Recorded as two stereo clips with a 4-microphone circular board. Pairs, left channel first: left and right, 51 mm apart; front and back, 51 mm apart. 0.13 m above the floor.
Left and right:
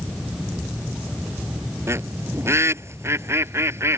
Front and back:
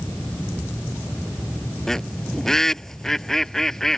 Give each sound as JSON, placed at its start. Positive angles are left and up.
{"t": 1.9, "sound": "a bird", "azimuth_deg": -80}